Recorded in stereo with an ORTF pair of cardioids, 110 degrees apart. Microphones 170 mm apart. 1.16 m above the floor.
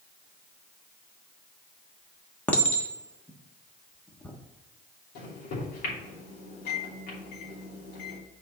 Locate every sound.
2.5 s a clink: 10° left, 1.3 m
5.2 s a microwave: 70° left, 3 m